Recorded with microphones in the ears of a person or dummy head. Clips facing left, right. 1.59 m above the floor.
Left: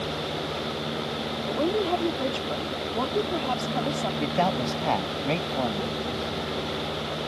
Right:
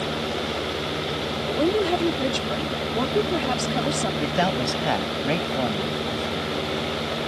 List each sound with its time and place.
1.5 s a woman speaking: 20° right (ahead or behind)
4.2 s a man speaking: 10° right (ahead or behind)